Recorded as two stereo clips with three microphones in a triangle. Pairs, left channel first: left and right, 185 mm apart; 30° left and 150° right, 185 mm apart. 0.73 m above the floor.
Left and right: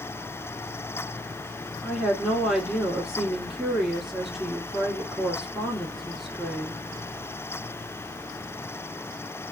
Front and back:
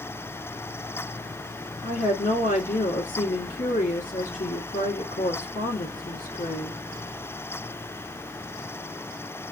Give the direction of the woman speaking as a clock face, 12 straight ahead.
12 o'clock.